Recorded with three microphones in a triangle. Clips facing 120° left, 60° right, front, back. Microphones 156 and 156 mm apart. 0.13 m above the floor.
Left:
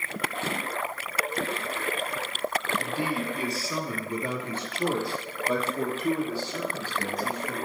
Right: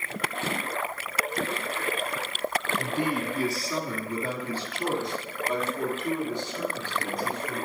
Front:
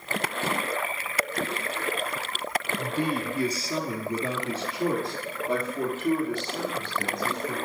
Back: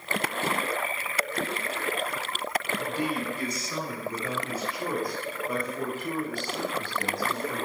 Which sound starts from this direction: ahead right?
A man speaking, at 2.8 s.